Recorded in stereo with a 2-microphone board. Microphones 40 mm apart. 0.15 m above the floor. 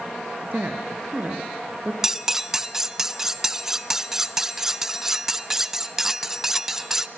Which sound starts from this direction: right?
A woman speaking, at 0.5 s.